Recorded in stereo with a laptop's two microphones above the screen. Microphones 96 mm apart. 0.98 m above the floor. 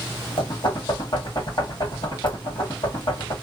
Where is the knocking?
50° left (ahead or behind), 1.4 m.